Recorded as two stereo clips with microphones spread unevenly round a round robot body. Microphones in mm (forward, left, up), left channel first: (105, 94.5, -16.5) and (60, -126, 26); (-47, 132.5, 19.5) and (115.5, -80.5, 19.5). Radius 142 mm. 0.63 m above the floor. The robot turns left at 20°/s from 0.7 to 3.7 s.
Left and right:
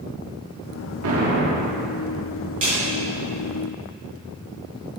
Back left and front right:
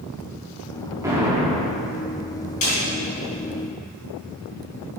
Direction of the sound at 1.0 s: 130° right.